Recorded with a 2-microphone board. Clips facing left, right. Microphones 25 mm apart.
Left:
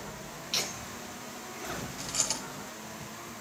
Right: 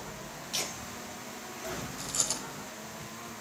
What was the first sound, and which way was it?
Laughter, 35° left (ahead or behind).